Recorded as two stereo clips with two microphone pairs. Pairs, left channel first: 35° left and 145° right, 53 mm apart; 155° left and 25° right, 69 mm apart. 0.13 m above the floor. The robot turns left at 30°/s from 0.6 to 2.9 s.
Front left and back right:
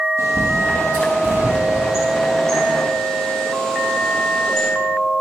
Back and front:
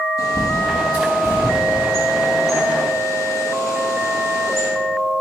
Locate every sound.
0.2 s a bird: straight behind, 3 m; by 4.7 s 115° left, 3 m